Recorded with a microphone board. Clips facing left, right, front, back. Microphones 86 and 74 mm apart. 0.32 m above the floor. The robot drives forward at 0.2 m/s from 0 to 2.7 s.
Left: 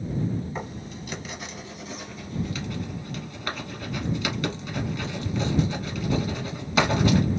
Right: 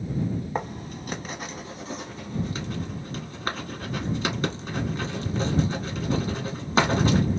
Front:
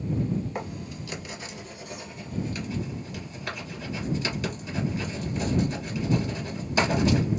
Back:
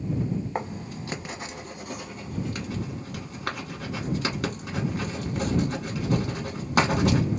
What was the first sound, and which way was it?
Writing, 125° right.